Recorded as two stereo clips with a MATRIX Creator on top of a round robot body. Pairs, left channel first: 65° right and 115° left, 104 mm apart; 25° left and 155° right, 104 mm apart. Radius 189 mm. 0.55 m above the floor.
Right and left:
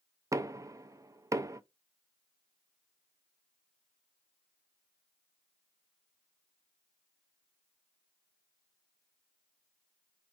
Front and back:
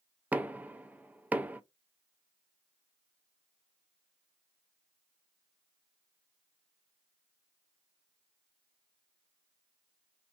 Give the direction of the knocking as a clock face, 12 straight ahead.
7 o'clock.